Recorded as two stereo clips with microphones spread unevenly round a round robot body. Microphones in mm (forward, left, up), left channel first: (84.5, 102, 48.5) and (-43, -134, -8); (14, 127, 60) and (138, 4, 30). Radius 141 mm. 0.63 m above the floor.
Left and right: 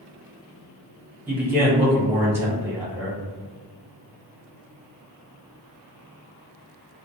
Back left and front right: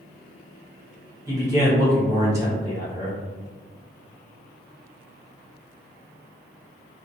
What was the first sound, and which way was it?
A man speaking, 70° right.